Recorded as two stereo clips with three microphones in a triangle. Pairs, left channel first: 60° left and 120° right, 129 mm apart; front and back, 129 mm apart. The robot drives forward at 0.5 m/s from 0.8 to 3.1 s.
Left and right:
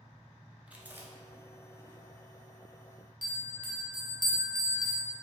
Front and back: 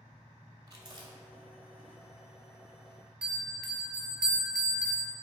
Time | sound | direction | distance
0.7 | chewing | 175° left | 0.5 m
3.2 | a bell | 100° left | 0.7 m